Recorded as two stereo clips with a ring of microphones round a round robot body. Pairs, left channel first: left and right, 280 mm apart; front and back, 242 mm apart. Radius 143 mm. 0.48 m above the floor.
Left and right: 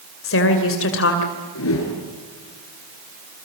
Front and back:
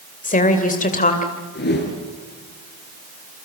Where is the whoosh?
45° left, 5 m.